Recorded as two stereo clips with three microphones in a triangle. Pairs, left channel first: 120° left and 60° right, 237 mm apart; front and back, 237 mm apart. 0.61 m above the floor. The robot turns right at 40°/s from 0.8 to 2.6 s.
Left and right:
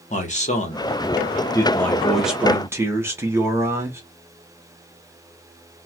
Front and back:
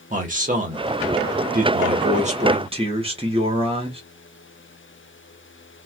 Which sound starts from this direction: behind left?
A man speaking, at 0.1 s.